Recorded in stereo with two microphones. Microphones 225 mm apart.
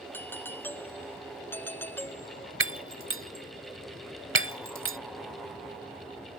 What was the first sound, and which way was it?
A doorbell, 10° left (ahead or behind).